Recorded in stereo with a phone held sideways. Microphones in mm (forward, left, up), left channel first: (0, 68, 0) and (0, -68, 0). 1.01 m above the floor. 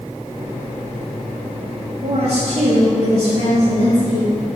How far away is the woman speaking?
About 2 m.